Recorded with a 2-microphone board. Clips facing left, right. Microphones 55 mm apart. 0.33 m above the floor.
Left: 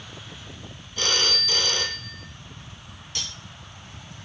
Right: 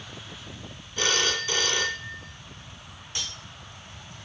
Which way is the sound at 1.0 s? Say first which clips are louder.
Even; 15° right (ahead or behind).